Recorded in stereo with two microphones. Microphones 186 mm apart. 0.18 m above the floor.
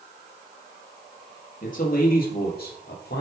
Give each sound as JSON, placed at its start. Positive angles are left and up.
{"t": 1.6, "sound": "a man speaking", "side_deg": 45, "distance_m": 4.0}